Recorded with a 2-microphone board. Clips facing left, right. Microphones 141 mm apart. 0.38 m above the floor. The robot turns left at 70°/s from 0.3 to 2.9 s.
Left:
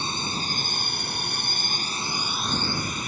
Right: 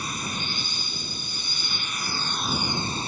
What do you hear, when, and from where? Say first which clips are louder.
0.0 s a drone: left 2 dB; 150° left; by 3.1 s 35° right